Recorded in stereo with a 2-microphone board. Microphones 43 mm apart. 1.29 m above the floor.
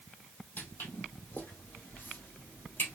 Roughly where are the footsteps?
Left.